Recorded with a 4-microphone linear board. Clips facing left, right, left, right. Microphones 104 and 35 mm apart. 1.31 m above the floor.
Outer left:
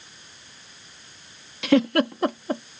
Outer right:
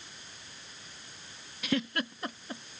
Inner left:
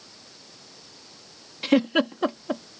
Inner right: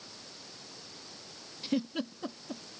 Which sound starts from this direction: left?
A giggle, at 1.6 s.